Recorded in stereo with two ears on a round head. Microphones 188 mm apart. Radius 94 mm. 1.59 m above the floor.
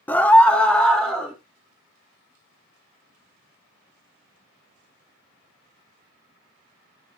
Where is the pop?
No pop in this recording.